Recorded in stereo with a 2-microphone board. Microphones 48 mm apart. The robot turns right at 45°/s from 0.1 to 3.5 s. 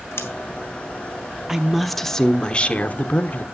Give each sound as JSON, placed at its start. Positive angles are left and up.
{"t": 0.2, "sound": "scissors", "side_deg": 70, "distance_m": 1.6}
{"t": 1.5, "sound": "a woman speaking", "azimuth_deg": -10, "distance_m": 0.9}